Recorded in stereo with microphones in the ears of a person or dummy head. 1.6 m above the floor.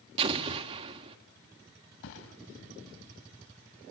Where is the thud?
70° left (ahead or behind), 3.5 m.